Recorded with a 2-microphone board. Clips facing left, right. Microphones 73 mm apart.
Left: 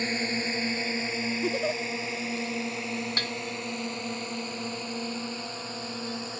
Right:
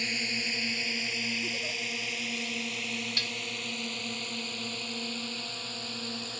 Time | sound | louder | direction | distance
0.0 | a drone | left 5 dB | 35° left (ahead or behind) | ?
1.4 | a giggle | left 8 dB | 55° left (ahead or behind) | ?
3.2 | dishes clattering | left 5 dB | 45° left (ahead or behind) | ?